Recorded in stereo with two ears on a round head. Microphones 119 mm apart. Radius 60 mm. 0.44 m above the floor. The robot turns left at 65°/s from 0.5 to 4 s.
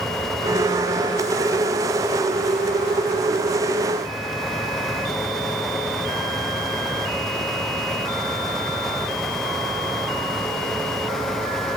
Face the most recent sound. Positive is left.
No sound to turn to.